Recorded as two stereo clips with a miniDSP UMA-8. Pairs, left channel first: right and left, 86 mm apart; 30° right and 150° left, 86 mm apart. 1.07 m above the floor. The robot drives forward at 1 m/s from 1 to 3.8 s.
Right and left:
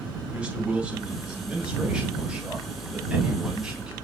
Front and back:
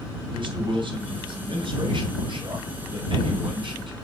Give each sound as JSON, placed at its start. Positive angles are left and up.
{"t": 0.3, "sound": "a man speaking", "azimuth_deg": 165, "distance_m": 6.0}